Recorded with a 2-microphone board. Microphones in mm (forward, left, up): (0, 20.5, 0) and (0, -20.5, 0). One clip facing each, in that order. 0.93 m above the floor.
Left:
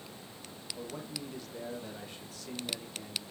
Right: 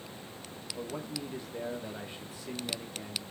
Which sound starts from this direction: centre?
A man speaking, at 0.8 s.